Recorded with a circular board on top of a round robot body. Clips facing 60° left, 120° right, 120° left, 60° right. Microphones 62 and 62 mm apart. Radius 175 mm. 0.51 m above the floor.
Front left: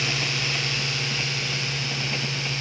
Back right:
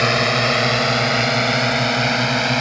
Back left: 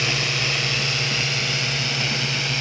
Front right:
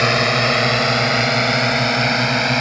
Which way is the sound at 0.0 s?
95° right.